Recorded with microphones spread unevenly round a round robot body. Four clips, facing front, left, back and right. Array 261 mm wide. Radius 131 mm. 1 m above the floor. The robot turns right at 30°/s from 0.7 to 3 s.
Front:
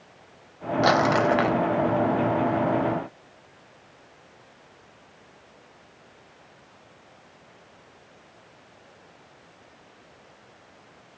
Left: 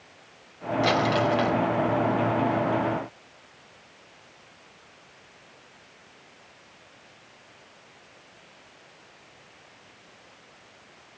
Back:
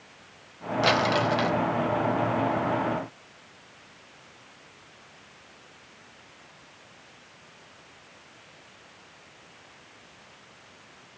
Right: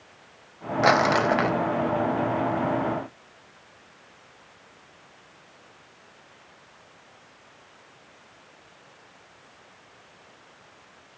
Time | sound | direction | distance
0.8 | crumpling | 90° right | 0.8 m